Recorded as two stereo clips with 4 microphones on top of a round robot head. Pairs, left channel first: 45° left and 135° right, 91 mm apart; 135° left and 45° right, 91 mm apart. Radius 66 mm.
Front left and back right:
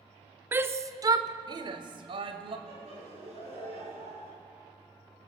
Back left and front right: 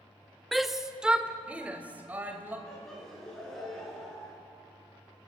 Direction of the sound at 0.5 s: 140° right.